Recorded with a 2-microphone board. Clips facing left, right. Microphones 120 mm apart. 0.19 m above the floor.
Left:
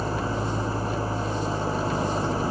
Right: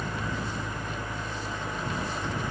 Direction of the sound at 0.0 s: 30° left (ahead or behind).